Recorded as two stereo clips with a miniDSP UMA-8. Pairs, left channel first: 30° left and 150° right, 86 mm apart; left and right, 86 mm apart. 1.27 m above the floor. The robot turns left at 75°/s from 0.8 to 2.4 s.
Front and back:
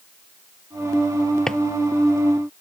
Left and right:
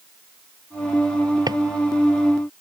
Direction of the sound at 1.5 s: 50° right.